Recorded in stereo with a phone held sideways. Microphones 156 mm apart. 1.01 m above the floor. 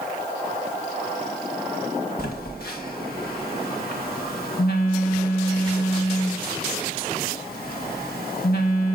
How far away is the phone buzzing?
About 1.1 m.